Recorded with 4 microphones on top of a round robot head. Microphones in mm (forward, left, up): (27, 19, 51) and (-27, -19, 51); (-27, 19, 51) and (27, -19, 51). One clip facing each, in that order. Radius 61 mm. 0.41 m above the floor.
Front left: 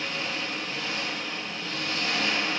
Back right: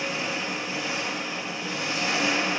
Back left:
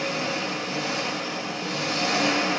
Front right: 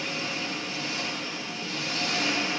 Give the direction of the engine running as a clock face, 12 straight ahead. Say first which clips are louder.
Back right 3 dB, back left 5 dB; 7 o'clock.